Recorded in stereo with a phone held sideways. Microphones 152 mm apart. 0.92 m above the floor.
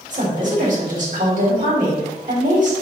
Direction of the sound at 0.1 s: 55° right (ahead or behind).